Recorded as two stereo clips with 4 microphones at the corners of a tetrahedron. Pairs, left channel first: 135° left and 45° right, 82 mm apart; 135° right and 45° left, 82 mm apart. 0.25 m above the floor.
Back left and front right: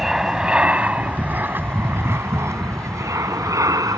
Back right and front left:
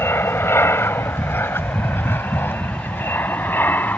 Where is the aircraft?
125° right; by 4.0 s 75° right.